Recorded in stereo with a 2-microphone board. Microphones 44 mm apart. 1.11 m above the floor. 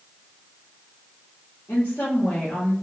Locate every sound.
1.7 s a woman speaking: 65° left (ahead or behind), 1.5 m; by 2.7 s 20° left (ahead or behind), 1.3 m